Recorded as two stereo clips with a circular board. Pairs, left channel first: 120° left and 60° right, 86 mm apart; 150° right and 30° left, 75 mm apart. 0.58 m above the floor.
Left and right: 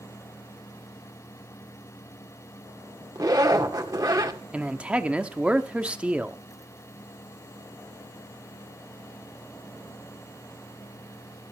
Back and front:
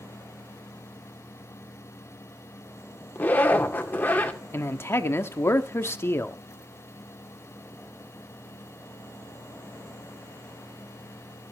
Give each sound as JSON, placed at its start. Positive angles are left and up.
{"t": 3.1, "sound": "a zipper", "azimuth_deg": -90, "distance_m": 1.8}
{"t": 4.5, "sound": "a man speaking", "azimuth_deg": -125, "distance_m": 1.0}